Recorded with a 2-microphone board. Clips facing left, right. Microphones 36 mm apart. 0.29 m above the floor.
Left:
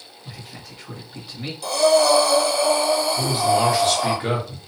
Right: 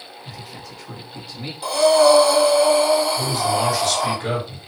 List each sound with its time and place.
0.2 s a man speaking: 10° left (ahead or behind), 1.4 m
1.6 s breathing: 30° right (ahead or behind), 1.3 m
3.2 s a man speaking: 35° left (ahead or behind), 1.3 m